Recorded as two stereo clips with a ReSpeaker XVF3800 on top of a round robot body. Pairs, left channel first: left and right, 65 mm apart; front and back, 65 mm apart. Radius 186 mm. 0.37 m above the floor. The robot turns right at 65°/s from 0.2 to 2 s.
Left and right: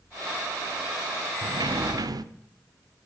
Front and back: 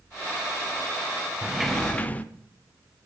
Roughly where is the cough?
I don't hear a cough.